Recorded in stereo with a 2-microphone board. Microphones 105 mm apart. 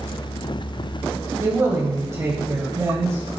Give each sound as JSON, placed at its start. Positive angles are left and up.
{"t": 1.4, "sound": "a man speaking", "side_deg": -25, "distance_m": 1.0}